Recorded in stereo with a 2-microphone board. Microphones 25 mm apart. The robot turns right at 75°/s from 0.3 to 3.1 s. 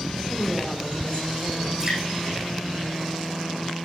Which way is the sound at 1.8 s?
25° right (ahead or behind).